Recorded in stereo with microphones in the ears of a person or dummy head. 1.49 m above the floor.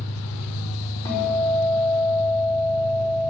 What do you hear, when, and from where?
0.0 s an engine running: 85° left, 1.1 m
1.1 s a guitar: 25° left (ahead or behind), 4 m